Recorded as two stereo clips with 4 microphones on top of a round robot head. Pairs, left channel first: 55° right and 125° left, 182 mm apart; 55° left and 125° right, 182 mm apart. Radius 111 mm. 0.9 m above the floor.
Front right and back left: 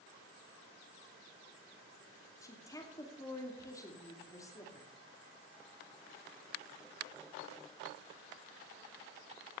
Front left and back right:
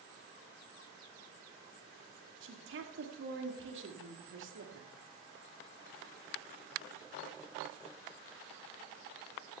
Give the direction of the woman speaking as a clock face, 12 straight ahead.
4 o'clock.